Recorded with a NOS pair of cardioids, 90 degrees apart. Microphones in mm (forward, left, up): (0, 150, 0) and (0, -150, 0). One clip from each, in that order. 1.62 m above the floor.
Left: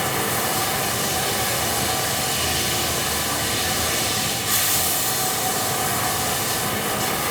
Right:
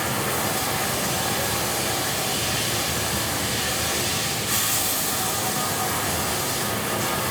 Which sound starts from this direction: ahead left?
Running water, at 0.0 s.